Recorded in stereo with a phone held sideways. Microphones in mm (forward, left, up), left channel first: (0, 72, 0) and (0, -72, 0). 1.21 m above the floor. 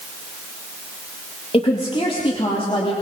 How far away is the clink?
I don't hear a clink.